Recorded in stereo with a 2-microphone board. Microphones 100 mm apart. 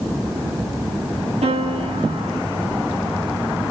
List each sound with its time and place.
1.4 s a piano: 85° right, 9.5 m